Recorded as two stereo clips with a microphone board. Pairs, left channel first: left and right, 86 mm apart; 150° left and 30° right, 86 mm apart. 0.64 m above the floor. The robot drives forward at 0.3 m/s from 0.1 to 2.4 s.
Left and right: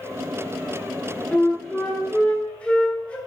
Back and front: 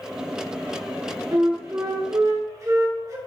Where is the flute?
10° left, 1.5 m; by 3.2 s 15° left, 1.2 m.